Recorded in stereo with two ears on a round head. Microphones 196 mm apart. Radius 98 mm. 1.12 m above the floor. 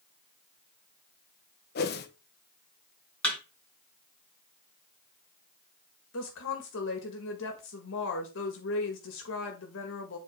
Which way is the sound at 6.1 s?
55° left (ahead or behind).